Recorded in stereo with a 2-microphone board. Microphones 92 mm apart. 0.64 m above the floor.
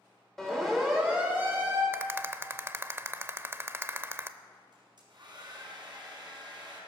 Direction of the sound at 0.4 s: 5° left (ahead or behind).